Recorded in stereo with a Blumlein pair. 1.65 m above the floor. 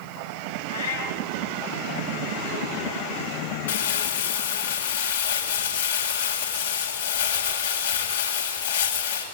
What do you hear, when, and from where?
0.7 s a cat meowing: 65° left, 5.5 m
3.7 s crumpling: 65° left, 7.5 m